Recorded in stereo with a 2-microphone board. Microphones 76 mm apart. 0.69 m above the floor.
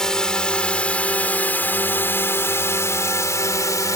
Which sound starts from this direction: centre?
A drone, at 0.0 s.